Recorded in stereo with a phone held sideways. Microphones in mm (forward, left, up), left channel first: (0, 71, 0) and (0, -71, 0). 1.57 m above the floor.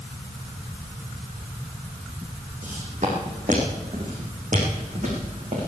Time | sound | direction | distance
2.6 | footsteps | 60° right (ahead or behind) | 4.5 m